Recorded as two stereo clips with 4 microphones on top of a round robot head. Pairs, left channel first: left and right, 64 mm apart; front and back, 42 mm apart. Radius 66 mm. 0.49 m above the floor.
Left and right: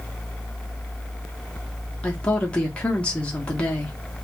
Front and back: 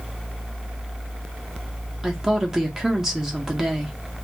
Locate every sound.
2.0 s a woman speaking: 125° left, 0.7 m